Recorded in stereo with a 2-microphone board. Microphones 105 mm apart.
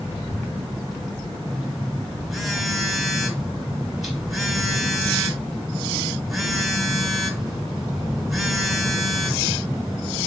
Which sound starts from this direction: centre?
A phone buzzing, at 1.5 s.